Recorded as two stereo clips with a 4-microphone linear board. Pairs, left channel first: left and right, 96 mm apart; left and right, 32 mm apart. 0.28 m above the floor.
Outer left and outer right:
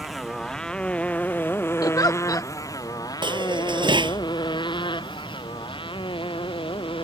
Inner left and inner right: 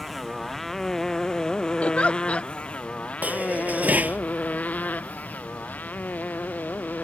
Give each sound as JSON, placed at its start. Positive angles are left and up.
{"t": 0.0, "sound": "a motorcycle", "side_deg": 0}
{"t": 1.8, "sound": "a giggle", "side_deg": 45}
{"t": 3.2, "sound": "dishes clattering", "side_deg": -60}